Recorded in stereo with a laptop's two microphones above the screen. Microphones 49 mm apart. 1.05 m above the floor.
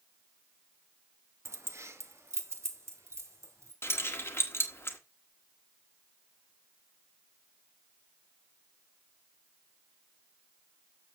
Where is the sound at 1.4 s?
60° right (ahead or behind), 0.8 m; by 3.7 s 70° right (ahead or behind), 2.5 m.